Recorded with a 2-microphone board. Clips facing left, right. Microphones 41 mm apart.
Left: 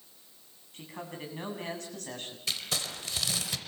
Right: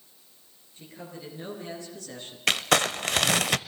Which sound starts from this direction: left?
A man speaking, at 0.7 s.